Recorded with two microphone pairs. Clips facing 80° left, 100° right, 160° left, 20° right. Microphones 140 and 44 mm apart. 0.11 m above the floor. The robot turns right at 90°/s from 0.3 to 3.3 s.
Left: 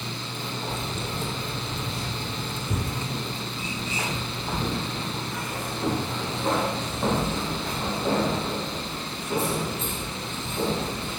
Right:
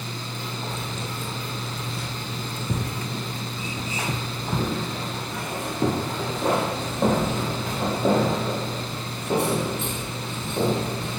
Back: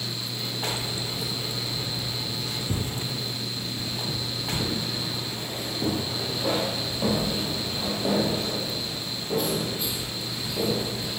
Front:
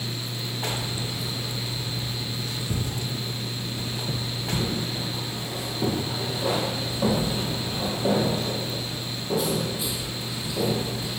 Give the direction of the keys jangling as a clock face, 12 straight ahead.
11 o'clock.